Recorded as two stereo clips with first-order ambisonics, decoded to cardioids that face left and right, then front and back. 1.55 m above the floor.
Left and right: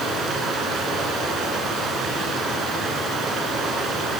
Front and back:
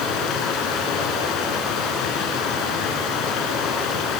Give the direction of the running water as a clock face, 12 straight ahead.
1 o'clock.